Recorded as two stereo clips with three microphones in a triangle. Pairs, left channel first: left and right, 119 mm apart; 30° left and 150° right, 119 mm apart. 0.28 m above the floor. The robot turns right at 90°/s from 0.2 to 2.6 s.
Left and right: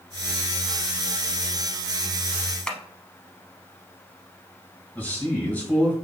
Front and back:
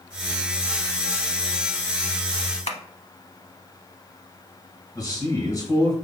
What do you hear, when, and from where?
2.7 s tapping: 5° left, 0.6 m
5.0 s a man speaking: 30° left, 1.7 m